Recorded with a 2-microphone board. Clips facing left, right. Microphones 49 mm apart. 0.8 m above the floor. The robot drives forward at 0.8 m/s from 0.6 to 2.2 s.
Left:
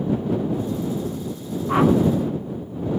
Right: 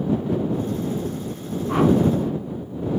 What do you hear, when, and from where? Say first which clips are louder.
1.7 s a whoosh: left 1 dB; 20° left (ahead or behind), 0.8 m; by 1.9 s 15° left (ahead or behind), 0.9 m